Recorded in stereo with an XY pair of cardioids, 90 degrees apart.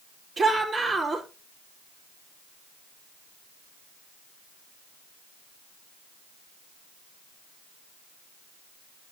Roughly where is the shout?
Ahead right.